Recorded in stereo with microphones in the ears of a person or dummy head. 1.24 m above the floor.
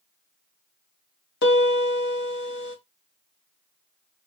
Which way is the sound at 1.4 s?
60° left (ahead or behind).